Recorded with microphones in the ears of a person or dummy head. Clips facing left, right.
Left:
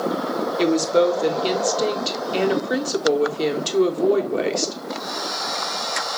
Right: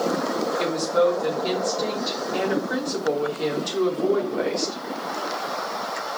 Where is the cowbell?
No cowbell in this recording.